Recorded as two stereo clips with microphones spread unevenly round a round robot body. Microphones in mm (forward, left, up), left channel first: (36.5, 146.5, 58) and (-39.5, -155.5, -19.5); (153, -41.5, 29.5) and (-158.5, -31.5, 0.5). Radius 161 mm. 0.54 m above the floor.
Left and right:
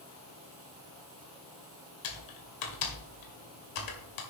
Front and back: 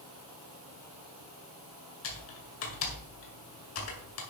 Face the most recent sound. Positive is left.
turn(degrees=50)